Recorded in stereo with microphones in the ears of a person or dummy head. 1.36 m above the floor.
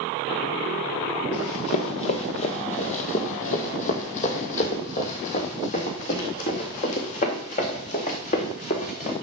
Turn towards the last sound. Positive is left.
turn(degrees=40)  # may be behind; listen again after turning